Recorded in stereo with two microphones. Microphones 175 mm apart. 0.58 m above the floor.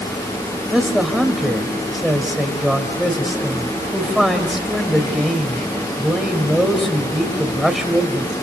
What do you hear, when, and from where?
0.7 s a man speaking: centre (ahead or behind), 3.5 m